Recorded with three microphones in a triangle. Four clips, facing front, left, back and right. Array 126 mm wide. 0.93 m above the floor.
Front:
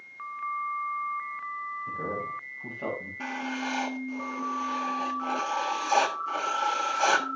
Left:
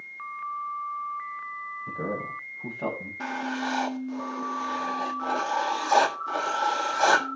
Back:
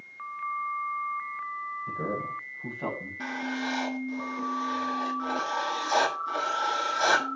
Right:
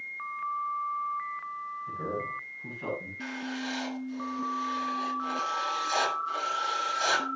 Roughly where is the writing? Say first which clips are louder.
Left 6 dB, back 2 dB; left.